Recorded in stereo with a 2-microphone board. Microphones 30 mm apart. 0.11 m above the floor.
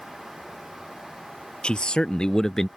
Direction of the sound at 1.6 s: 35° left (ahead or behind).